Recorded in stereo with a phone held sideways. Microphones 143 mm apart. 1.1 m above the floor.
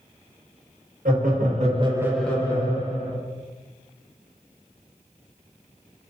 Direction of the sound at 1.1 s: 75° right (ahead or behind).